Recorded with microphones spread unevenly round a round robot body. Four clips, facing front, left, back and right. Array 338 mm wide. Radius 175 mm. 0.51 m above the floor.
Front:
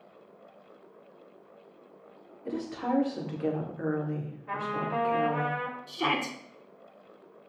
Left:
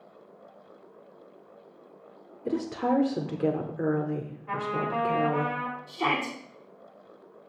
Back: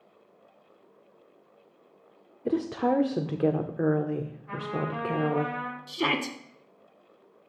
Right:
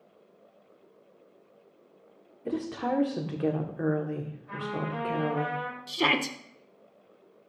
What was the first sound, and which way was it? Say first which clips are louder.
A woman speaking: left 3 dB, back 6 dB; 165° left.